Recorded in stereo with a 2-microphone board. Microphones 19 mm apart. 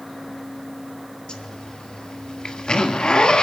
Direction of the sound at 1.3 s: 60° left (ahead or behind).